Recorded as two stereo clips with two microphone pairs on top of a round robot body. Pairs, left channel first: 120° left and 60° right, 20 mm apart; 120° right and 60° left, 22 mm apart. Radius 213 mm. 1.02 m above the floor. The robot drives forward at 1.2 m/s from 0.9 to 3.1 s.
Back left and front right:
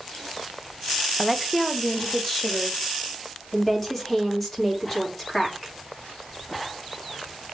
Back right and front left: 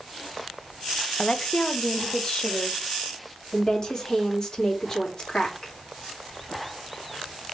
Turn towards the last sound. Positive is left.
turn(degrees=-170)